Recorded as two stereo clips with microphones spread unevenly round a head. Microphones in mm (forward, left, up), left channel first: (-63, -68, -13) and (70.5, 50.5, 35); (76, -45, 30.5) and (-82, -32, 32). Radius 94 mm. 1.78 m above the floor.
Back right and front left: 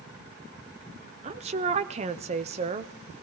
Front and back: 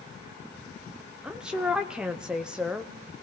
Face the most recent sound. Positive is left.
turn(degrees=90)